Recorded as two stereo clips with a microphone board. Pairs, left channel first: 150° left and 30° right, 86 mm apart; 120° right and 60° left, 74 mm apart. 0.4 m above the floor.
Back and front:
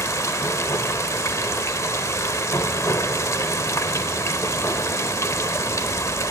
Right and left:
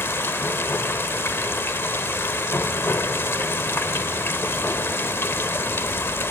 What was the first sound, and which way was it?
Running water, 170° right.